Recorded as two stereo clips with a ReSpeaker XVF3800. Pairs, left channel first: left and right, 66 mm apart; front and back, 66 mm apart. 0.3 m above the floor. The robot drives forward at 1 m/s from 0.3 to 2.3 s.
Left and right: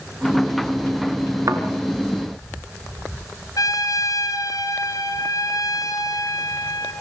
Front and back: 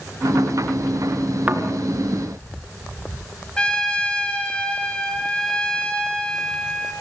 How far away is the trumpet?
About 2.5 m.